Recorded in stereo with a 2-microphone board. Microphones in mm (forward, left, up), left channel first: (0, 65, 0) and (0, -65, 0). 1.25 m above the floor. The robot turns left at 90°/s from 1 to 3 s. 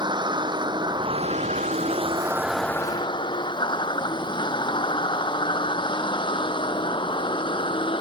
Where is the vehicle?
40° right (ahead or behind); by 8.0 s 45° left (ahead or behind).